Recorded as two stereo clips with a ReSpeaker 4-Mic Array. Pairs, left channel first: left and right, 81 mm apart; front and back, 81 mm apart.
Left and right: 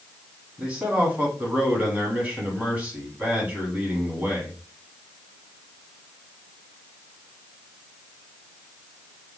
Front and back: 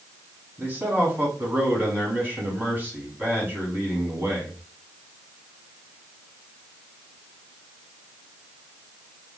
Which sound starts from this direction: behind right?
A man speaking, at 0.6 s.